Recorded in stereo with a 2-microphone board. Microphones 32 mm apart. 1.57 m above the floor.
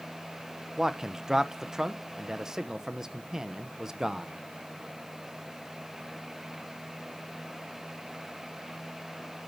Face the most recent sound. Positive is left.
turn(degrees=-20)  # may be behind; listen again after turning